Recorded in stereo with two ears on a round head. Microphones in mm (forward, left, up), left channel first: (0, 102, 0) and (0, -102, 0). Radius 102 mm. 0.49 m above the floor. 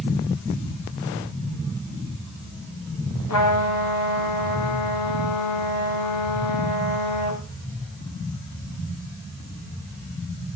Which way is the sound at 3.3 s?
85° left.